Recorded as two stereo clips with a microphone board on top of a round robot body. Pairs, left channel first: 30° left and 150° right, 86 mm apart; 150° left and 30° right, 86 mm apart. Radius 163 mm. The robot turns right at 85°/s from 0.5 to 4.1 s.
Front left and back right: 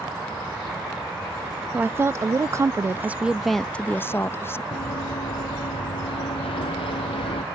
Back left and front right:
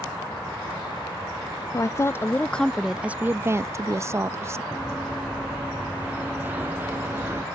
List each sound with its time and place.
1.7 s a woman speaking: 150° left; by 4.6 s 5° right
4.7 s running footsteps: 50° left; by 7.4 s 35° left